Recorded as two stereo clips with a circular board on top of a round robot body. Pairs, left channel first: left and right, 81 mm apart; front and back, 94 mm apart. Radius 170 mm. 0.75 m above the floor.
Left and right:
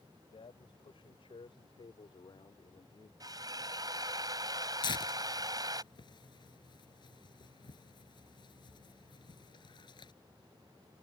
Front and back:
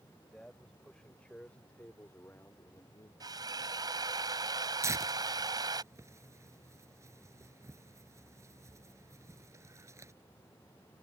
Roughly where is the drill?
Behind right.